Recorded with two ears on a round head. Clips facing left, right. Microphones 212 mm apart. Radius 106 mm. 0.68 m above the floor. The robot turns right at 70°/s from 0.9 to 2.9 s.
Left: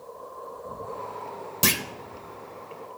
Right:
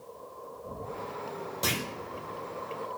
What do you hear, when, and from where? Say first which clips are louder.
1.6 s a clunk: left 5 dB; 35° left (ahead or behind), 0.6 m; by 1.8 s 25° left (ahead or behind), 0.6 m